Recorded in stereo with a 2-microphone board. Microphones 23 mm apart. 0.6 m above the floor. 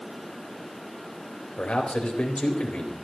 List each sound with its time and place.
1.6 s a man speaking: 75° left (ahead or behind), 4 m